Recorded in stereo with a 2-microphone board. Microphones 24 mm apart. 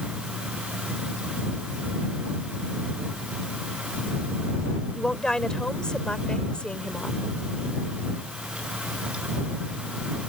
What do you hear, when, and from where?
5.0 s a woman speaking: 30° left (ahead or behind); by 7.2 s 50° left (ahead or behind)